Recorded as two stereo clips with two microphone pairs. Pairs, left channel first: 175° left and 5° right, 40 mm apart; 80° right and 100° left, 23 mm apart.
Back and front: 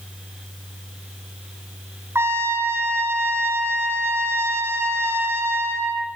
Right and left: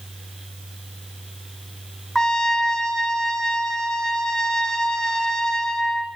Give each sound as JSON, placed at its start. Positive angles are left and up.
{"t": 2.1, "sound": "a trumpet", "azimuth_deg": -10, "distance_m": 3.0}